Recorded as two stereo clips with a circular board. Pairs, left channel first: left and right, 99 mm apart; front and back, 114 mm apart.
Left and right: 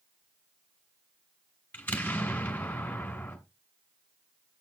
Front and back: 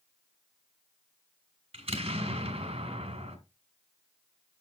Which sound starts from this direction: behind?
An explosion, at 1.7 s.